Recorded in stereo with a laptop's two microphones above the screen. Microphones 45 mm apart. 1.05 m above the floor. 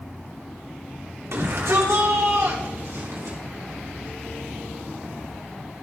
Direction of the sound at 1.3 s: 75° right (ahead or behind).